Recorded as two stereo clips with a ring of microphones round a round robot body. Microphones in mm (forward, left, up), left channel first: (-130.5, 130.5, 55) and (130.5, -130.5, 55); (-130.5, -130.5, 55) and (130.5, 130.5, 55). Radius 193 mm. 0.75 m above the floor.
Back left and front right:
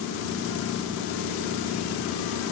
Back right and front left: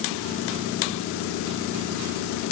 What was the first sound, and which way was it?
Only background noise.